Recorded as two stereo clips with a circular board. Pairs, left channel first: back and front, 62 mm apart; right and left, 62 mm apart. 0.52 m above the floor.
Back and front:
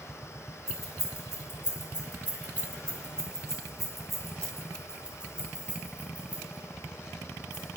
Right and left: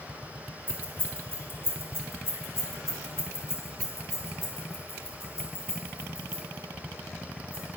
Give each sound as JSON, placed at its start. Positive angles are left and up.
{"t": 0.7, "sound": "keys jangling", "azimuth_deg": 145, "distance_m": 2.0}